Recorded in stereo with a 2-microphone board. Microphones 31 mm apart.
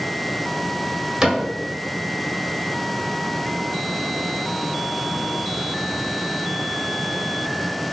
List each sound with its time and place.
1.2 s a cupboard door: 25° right (ahead or behind), 1.0 m